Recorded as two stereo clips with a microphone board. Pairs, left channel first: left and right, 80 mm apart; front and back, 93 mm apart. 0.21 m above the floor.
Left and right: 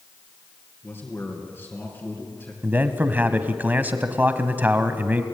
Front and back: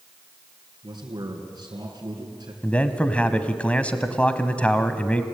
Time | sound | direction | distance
0.8 | a man speaking | 145° left | 3 m
2.6 | a man speaking | 55° right | 1.2 m